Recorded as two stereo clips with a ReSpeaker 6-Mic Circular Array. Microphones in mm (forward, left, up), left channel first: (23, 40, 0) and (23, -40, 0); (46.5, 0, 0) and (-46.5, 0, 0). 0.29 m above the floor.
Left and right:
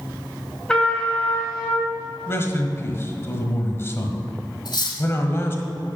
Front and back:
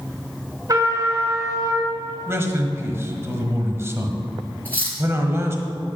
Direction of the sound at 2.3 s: 130° left.